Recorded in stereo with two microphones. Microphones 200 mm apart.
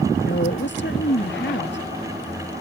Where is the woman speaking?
65° left (ahead or behind).